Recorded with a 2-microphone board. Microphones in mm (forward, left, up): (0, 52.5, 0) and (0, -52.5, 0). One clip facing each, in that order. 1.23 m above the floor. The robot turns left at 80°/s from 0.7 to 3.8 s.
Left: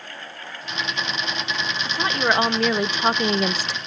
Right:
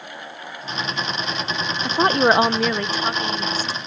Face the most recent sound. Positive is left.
turn(degrees=90)